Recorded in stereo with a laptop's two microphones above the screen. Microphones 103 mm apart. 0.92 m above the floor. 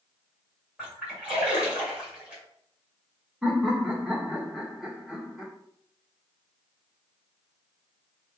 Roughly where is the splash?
Centre.